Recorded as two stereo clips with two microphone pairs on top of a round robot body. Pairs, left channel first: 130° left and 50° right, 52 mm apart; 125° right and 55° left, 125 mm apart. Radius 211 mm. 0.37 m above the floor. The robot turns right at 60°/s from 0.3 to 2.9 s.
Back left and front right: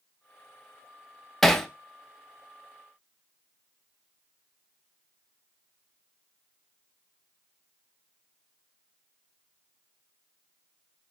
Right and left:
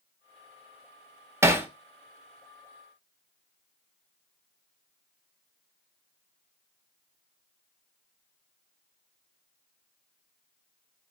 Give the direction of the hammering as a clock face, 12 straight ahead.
9 o'clock.